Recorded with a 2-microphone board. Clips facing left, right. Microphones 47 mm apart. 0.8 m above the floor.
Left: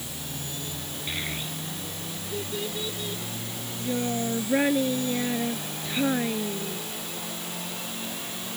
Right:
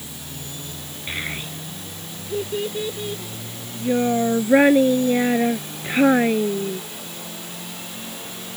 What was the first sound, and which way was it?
A child speaking, 25° right (ahead or behind).